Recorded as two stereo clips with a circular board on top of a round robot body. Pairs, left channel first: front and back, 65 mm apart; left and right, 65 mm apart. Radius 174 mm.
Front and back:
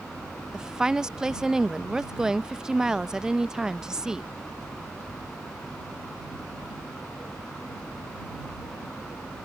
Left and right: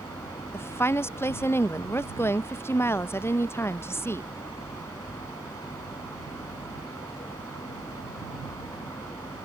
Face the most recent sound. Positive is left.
turn(degrees=105)